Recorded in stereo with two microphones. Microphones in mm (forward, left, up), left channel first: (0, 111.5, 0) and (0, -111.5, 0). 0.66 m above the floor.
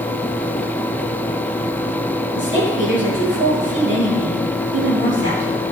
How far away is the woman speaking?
About 9 m.